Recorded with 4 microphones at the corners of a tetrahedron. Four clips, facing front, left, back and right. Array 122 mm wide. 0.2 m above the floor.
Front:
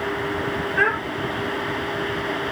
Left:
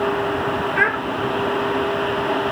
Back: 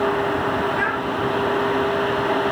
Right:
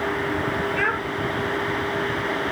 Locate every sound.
0.8 s a child speaking: 70° left, 3.5 m